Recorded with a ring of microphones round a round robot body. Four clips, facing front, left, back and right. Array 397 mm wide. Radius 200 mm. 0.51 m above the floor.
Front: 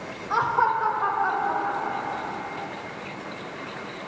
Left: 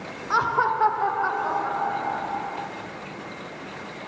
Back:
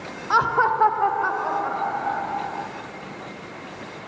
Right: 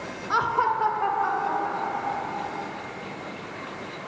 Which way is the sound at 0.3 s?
175° left.